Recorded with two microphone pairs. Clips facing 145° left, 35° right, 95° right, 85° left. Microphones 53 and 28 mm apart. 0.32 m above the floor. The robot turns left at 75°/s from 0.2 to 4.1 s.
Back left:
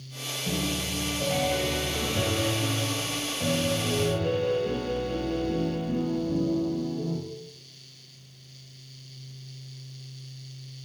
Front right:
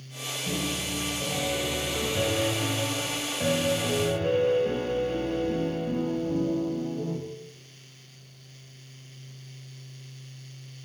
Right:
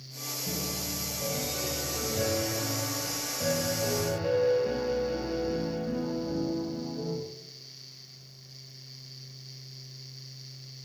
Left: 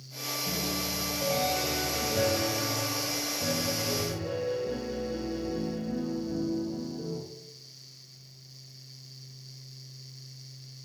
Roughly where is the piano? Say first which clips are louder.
Back left 1 dB, left 2 dB; behind.